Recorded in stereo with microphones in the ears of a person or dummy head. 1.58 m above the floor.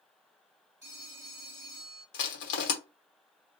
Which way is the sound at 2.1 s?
70° left (ahead or behind).